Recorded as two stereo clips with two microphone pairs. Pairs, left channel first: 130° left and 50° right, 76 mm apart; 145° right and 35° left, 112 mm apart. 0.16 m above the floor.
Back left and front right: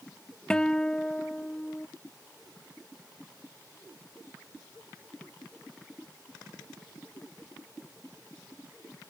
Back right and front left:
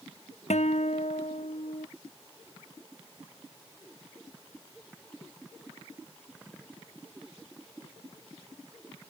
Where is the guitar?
150° right.